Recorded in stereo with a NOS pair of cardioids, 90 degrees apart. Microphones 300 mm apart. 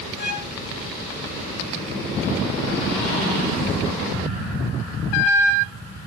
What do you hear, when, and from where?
0.2 s a violin: 35° left, 3 m